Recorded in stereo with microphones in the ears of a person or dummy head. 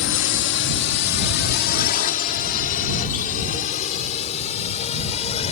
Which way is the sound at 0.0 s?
60° left (ahead or behind).